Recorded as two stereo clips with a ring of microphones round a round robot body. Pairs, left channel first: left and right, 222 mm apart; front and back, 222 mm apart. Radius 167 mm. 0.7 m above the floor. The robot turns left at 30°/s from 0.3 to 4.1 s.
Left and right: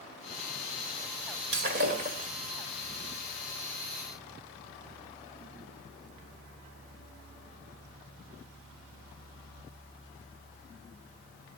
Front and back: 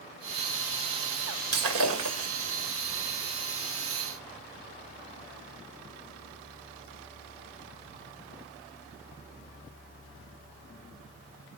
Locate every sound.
1.5 s breaking glass: 145° right, 1.7 m; by 2.3 s 165° right, 1.7 m